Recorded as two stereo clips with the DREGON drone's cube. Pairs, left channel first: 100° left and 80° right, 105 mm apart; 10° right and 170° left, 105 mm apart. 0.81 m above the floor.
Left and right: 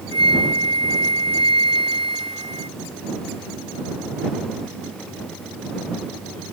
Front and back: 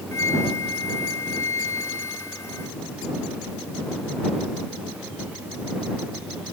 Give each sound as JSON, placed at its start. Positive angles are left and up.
{"t": 0.1, "sound": "a flute", "azimuth_deg": -70}